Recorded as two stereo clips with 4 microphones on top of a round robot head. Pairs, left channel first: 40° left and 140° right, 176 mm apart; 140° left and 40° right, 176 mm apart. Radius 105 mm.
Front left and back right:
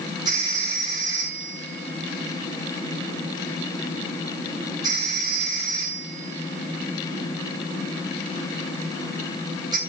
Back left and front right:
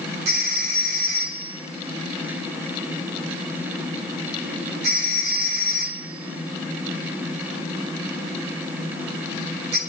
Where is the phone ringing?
70° right, 7.5 m.